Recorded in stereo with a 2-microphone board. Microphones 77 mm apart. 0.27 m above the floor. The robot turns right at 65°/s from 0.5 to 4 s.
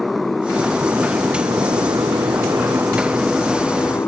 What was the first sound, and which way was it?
A motorcycle, centre (ahead or behind).